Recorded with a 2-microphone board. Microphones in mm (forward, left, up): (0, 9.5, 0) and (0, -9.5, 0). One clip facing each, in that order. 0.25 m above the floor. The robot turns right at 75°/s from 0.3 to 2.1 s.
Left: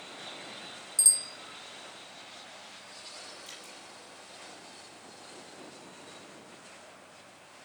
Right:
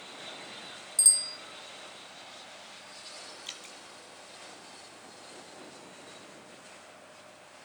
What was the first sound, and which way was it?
A bicycle bell, 175° left.